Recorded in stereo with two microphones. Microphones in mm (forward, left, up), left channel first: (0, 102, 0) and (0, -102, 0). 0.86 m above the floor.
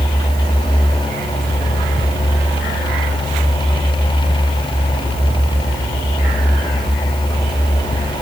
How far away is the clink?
No clink in this recording.